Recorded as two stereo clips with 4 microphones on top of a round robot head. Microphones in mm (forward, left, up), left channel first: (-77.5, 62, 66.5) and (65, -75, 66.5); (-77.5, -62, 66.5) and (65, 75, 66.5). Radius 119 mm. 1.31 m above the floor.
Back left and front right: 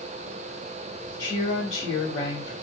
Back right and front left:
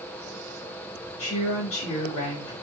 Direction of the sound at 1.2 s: 150° right.